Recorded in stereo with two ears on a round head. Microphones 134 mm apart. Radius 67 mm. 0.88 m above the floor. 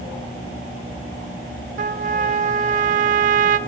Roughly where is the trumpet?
Right.